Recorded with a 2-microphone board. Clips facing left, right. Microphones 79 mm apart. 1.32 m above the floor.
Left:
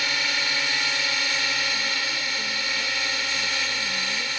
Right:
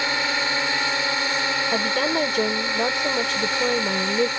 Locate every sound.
0.0 s a drone: 30° right (ahead or behind)
1.7 s a woman speaking: 85° right